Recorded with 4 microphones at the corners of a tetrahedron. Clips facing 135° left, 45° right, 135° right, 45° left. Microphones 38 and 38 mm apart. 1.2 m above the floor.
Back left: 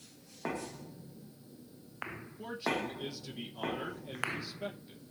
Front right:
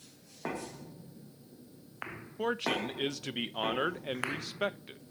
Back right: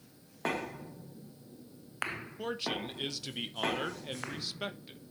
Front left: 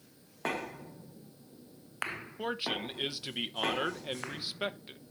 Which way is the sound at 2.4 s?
30° right.